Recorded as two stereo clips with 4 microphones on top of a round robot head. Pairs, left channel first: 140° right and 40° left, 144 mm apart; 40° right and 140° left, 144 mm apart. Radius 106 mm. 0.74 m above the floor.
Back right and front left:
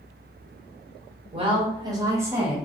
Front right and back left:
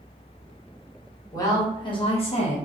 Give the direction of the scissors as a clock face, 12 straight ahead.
I don't hear scissors.